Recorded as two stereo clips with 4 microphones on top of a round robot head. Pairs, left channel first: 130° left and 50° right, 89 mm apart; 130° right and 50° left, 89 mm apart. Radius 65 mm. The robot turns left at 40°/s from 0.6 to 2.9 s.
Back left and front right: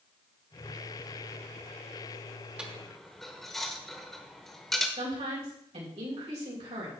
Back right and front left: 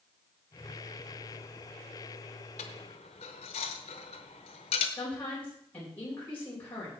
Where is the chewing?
I don't hear chewing.